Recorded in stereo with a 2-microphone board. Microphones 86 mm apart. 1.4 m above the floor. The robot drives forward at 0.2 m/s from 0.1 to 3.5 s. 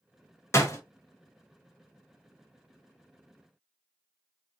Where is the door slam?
30° left (ahead or behind), 0.8 m; by 0.8 s 35° left (ahead or behind), 0.8 m.